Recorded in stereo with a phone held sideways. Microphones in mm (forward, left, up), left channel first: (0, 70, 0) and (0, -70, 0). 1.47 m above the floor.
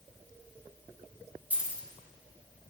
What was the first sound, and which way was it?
Keys jangling, 10° right (ahead or behind).